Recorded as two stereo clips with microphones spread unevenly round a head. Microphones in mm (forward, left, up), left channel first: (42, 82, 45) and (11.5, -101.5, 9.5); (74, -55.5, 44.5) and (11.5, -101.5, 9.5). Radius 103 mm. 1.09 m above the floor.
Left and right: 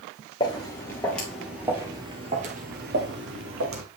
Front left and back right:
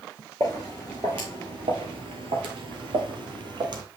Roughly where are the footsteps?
Behind left.